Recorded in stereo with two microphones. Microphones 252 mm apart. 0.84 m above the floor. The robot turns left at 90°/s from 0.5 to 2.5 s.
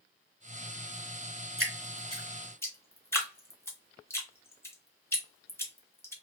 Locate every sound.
1.6 s dripping: 55° right (ahead or behind), 1.0 m; by 6.1 s 10° left (ahead or behind), 1.0 m